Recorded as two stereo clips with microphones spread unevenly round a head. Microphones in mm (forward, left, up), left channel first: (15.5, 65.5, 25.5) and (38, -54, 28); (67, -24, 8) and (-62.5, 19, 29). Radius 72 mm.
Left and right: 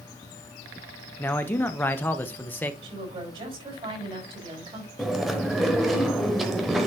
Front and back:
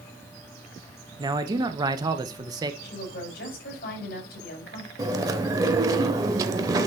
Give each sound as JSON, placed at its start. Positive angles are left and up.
{"t": 1.2, "sound": "a man speaking", "azimuth_deg": 135, "distance_m": 0.8}
{"t": 2.8, "sound": "a woman speaking", "azimuth_deg": -35, "distance_m": 4.5}
{"t": 5.0, "sound": "chewing", "azimuth_deg": -165, "distance_m": 0.7}